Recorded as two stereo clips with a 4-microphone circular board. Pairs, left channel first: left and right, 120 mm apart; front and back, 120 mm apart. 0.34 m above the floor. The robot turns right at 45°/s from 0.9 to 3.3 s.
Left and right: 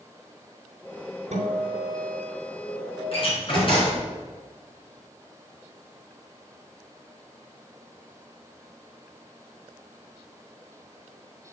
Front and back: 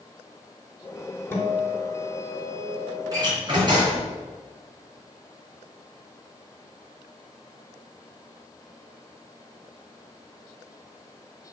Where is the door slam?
125° left, 3 m; by 4.1 s 130° left, 3 m.